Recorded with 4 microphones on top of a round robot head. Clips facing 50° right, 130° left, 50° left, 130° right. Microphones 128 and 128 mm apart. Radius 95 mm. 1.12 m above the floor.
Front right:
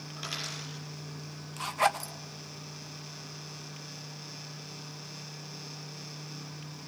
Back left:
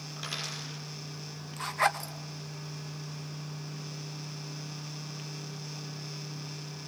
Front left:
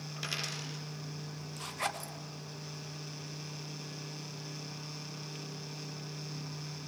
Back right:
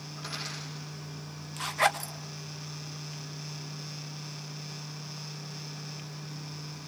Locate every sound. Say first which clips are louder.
0.2 s a dropped coin: even, back right 1 dB; 40° left, 6.5 m
1.6 s a zipper: front right 1 dB, back right 11 dB; 120° right, 1.7 m